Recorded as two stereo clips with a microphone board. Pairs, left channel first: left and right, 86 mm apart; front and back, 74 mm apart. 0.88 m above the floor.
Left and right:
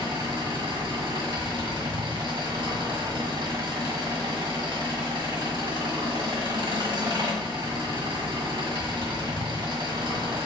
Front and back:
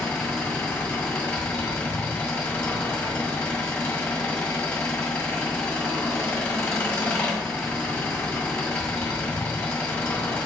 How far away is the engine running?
About 1.4 m.